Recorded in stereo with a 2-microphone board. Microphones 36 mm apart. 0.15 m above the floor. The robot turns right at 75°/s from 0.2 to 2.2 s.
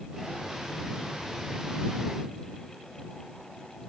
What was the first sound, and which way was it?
Only background noise.